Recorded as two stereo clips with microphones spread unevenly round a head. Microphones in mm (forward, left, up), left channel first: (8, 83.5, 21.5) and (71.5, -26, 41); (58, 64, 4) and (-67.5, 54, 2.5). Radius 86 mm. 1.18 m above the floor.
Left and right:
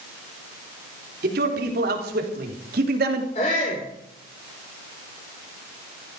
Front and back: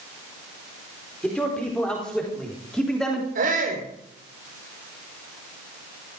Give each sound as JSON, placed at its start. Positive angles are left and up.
{"t": 1.2, "sound": "a man speaking", "azimuth_deg": -80, "distance_m": 4.5}
{"t": 3.4, "sound": "a shout", "azimuth_deg": 175, "distance_m": 4.5}